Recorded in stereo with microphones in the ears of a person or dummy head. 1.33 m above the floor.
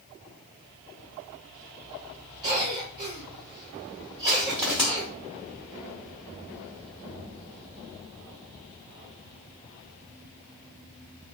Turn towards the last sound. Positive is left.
turn(degrees=-15)  # may be behind; listen again after turning